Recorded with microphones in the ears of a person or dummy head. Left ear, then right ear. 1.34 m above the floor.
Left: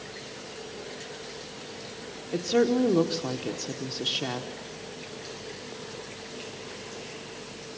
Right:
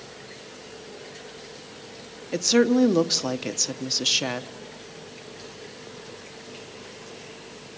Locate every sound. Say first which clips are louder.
2.3 s a woman speaking: right 4 dB; 75° right (ahead or behind), 1.0 m